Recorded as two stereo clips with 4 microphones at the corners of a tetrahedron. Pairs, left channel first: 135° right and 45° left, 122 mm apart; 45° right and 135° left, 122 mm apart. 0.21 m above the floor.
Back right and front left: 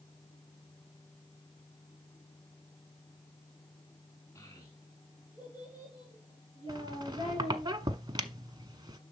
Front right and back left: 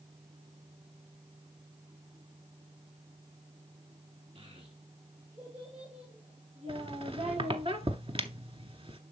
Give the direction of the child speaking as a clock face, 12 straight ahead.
7 o'clock.